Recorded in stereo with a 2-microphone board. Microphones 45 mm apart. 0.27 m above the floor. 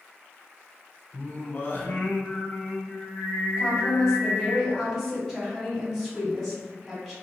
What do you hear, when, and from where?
1.1 s singing: 45° left (ahead or behind), 0.8 m
3.6 s a woman speaking: 5° left (ahead or behind), 2.0 m